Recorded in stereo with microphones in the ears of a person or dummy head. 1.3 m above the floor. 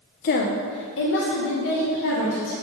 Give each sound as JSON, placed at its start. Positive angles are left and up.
{"t": 0.2, "sound": "a woman speaking", "side_deg": 50, "distance_m": 0.5}